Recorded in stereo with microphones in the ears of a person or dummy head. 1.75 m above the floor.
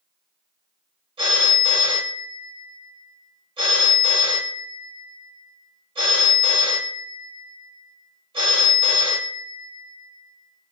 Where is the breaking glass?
I don't hear breaking glass.